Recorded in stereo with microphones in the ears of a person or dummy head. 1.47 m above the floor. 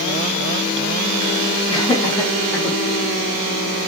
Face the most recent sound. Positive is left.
turn(degrees=0)  # may be behind; listen again after turning